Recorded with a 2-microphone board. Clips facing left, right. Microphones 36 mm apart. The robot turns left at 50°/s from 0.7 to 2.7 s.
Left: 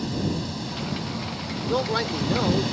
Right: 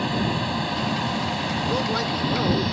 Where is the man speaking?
20° left (ahead or behind); by 2.8 s 5° right (ahead or behind).